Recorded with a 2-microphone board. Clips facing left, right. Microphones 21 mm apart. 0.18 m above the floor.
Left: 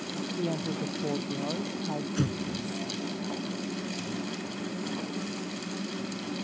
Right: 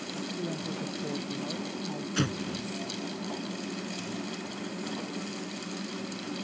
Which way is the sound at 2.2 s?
40° right (ahead or behind).